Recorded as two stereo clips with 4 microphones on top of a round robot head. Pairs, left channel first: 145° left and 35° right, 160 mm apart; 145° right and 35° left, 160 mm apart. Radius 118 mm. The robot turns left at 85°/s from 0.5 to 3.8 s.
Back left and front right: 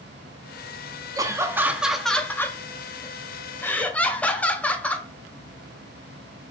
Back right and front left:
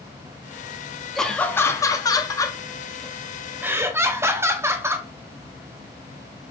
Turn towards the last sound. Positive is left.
turn(degrees=80)